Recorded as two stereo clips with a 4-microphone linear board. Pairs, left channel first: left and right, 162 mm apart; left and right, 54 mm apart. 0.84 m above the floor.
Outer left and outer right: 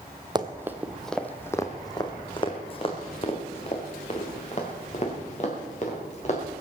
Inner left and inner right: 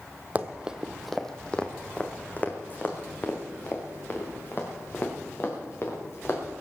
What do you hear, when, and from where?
0.3 s running footsteps: 25° right (ahead or behind), 1.1 m; by 6.4 s 50° left (ahead or behind), 5.5 m